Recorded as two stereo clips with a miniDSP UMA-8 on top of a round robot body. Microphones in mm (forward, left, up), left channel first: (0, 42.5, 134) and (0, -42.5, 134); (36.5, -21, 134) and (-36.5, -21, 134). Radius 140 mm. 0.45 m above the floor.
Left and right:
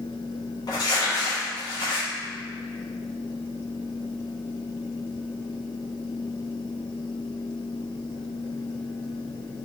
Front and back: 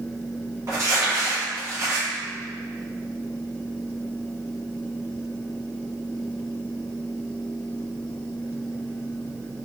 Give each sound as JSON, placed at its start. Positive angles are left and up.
{"t": 0.7, "sound": "crumpling", "azimuth_deg": 130, "distance_m": 1.3}